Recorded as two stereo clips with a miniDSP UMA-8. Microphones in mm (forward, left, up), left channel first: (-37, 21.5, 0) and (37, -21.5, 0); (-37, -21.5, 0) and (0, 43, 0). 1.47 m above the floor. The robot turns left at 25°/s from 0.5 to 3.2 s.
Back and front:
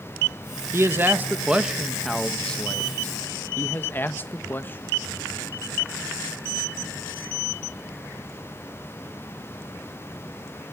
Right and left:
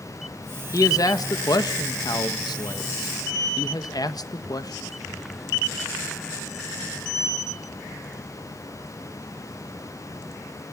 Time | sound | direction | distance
0.7 | a man speaking | 85° right | 1.3 m